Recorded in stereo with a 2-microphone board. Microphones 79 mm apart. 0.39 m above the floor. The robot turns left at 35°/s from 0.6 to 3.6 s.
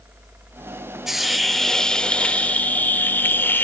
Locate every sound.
1.1 s a hiss: 5° right (ahead or behind), 0.8 m; by 3.6 s 25° left (ahead or behind), 0.8 m